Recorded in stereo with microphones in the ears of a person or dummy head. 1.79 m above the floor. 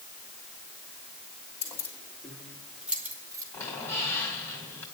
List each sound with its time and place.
1.6 s keys jangling: 15° left (ahead or behind), 3 m; by 3.4 s 20° right (ahead or behind), 2.0 m
3.5 s a squeak: 10° left (ahead or behind), 2 m